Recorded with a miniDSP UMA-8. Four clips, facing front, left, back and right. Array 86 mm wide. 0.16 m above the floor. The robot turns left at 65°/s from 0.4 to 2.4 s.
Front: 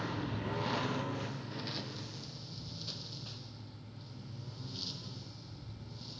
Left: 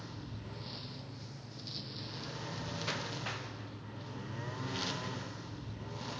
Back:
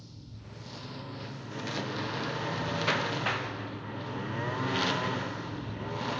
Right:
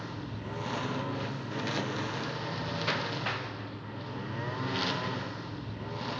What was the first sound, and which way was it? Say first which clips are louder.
A lawn mower: right 8 dB, front 13 dB; 30° right.